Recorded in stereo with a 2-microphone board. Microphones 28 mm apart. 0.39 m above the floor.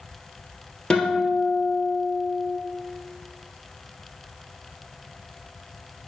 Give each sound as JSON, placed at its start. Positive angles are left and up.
{"t": 0.9, "sound": "a guitar", "side_deg": 35, "distance_m": 1.9}